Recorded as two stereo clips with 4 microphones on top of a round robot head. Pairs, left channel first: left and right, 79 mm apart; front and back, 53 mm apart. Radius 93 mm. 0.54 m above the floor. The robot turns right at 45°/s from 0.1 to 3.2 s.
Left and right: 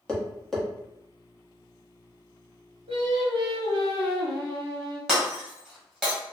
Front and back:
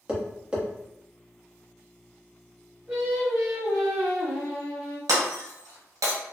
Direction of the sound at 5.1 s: Straight behind.